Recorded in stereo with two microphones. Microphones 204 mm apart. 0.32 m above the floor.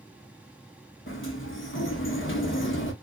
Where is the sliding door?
75° left (ahead or behind), 0.8 m.